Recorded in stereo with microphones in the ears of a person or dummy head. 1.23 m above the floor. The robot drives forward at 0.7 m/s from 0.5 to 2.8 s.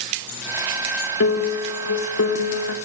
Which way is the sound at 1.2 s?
80° left.